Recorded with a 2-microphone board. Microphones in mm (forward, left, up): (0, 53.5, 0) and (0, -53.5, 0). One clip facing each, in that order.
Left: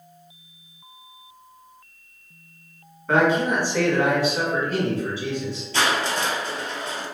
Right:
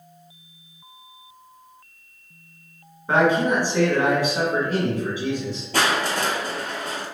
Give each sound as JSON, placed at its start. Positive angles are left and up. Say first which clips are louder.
{"t": 3.1, "sound": "a man speaking", "louder": "right 1 dB", "side_deg": -15, "distance_m": 1.1}
{"t": 5.7, "sound": "crushing", "louder": "right 1 dB", "side_deg": -55, "distance_m": 0.5}